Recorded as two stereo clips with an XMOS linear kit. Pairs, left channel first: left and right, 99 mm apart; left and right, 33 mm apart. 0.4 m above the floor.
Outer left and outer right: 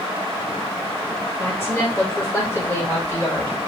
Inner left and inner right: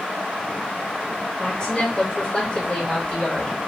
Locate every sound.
1.4 s a woman speaking: 25° left (ahead or behind), 1.6 m